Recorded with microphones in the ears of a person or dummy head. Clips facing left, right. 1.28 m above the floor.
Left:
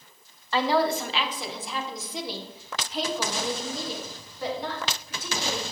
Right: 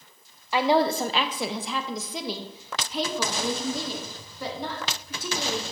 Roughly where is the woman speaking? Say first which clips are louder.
Right 2 dB; centre.